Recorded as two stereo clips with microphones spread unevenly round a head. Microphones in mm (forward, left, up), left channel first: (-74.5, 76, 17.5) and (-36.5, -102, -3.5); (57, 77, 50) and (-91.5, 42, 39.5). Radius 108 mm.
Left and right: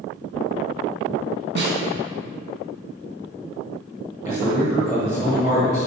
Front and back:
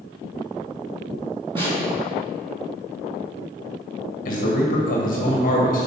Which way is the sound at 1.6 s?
95° right.